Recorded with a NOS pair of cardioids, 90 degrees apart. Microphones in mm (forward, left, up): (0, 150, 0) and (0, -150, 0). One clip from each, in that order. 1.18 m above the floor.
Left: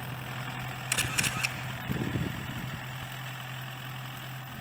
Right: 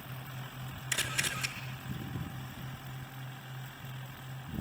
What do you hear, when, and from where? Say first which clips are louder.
0.9 s a camera shutter: left 3 dB; 45° left, 3.5 m